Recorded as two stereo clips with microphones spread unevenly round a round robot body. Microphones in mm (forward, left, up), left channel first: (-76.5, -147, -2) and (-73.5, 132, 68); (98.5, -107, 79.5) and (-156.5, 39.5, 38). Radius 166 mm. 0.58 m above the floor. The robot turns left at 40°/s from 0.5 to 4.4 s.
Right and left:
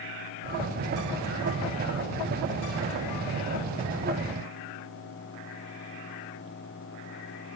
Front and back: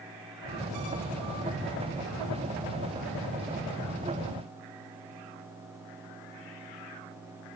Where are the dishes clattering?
I don't hear dishes clattering.